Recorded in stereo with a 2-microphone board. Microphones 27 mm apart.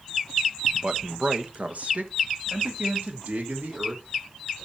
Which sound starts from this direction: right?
A man speaking, at 0.7 s.